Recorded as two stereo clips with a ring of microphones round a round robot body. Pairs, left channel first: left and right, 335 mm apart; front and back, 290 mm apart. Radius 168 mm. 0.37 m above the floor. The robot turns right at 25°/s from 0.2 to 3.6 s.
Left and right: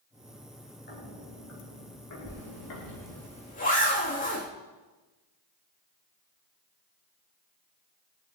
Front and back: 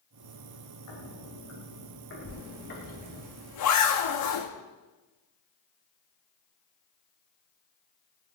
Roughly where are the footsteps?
Ahead left.